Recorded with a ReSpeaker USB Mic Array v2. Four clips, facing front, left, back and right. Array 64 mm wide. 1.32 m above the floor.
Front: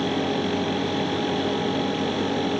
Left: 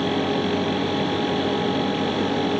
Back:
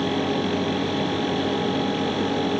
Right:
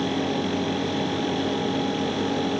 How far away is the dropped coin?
No dropped coin in this recording.